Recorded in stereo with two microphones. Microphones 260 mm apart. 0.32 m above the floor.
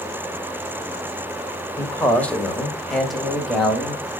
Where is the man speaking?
10° left (ahead or behind), 1.1 m; by 4.0 s centre (ahead or behind), 2 m.